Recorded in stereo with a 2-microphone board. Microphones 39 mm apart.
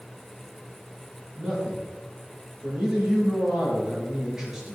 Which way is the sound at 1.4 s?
15° right (ahead or behind).